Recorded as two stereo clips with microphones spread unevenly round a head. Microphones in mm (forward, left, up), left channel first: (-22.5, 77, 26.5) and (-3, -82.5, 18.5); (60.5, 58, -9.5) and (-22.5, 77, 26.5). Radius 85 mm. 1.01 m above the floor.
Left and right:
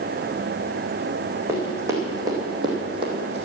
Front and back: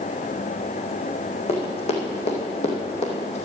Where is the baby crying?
No baby crying in this recording.